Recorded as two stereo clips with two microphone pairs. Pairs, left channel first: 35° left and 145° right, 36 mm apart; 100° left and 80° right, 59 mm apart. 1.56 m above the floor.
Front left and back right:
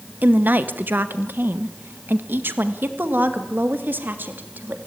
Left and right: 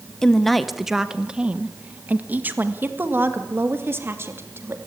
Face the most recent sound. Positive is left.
turn(degrees=-120)